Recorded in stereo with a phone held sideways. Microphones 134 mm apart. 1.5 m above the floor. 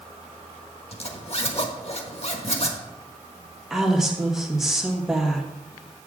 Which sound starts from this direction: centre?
A woman speaking, at 3.7 s.